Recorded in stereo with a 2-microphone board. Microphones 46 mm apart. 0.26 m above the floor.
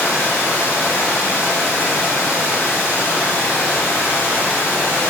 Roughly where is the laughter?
I don't hear laughter.